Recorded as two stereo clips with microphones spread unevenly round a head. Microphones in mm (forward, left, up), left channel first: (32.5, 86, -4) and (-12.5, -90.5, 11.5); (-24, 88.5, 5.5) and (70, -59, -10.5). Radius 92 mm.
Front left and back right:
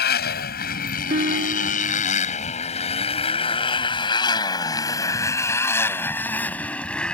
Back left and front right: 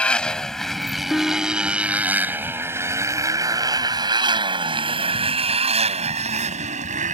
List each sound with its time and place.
0.0 s a motorcycle: 40° left; by 7.2 s 10° right
1.1 s a guitar: 155° right